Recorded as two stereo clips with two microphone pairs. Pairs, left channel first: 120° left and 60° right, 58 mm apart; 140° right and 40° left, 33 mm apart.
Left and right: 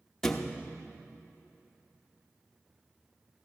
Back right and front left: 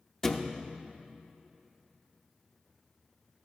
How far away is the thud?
About 0.7 m.